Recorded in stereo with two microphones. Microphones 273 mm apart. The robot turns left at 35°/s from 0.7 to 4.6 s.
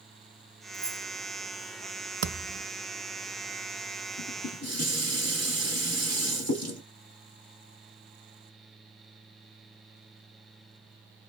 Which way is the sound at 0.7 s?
5° right (ahead or behind).